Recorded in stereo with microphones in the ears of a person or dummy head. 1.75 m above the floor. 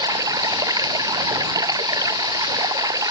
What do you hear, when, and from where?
0.0 s running water: 20° right (ahead or behind)